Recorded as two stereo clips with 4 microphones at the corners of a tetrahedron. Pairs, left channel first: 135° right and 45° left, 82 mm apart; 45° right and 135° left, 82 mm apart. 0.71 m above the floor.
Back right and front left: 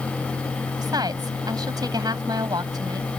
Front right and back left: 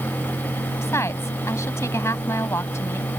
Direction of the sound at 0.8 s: 10° left.